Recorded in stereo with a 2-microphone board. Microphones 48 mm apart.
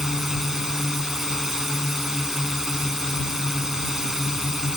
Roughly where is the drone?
Centre.